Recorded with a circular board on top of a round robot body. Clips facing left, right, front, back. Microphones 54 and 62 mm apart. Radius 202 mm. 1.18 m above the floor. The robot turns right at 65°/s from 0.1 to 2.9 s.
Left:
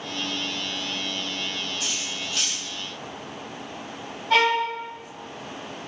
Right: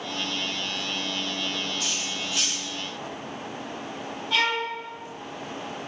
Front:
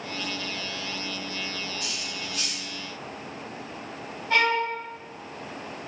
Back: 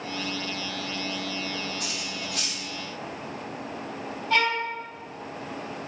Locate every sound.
1.8 s cutlery clinking: 160° left, 1.6 m; by 2.6 s 150° right, 1.6 m
4.3 s a violin: 55° left, 1.1 m